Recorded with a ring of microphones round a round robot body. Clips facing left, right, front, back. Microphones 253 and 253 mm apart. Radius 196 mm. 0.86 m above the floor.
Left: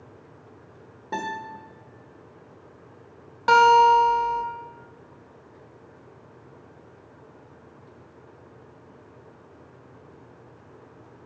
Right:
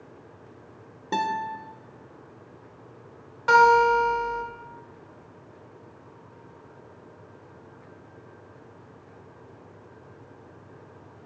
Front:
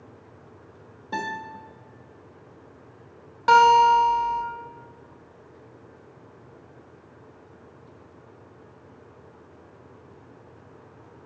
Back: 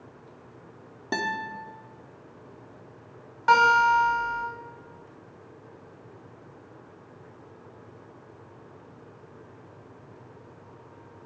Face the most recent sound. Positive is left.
turn(degrees=45)